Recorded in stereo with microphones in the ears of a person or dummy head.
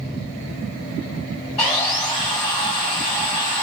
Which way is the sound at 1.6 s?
20° left (ahead or behind).